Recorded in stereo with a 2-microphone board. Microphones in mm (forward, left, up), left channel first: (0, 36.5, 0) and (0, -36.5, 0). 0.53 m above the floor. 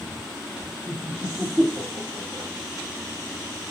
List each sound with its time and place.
0.9 s laughter: 45° right (ahead or behind), 1.1 m; by 2.5 s 50° left (ahead or behind), 1.2 m